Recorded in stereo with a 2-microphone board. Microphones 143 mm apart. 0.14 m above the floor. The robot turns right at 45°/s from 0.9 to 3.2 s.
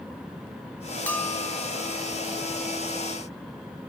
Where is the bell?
10° left (ahead or behind), 1.4 m; by 1.7 s 30° left (ahead or behind), 1.4 m.